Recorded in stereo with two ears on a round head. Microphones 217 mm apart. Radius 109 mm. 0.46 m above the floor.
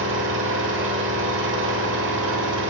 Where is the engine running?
55° right (ahead or behind), 1.3 m.